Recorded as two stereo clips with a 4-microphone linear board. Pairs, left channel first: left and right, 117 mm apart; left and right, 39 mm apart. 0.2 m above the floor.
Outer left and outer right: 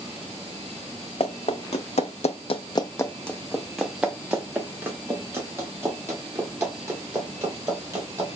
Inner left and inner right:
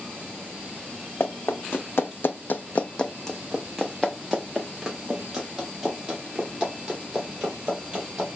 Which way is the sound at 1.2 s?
60° left (ahead or behind).